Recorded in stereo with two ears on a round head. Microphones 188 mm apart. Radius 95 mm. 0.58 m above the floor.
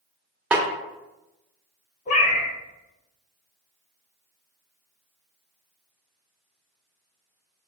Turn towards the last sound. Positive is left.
turn(degrees=35)  # may be behind; listen again after turning